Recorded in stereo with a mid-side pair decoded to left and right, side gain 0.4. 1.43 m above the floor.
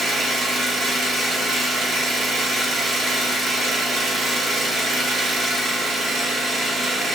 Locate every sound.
0.0 s an engine running: 65° right, 0.9 m